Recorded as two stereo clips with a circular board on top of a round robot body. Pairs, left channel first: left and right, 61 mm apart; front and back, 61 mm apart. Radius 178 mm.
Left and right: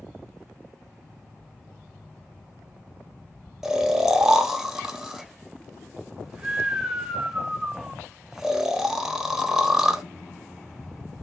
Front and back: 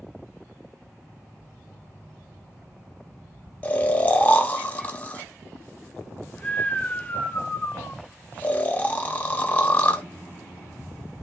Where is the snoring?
20° right, 0.8 m.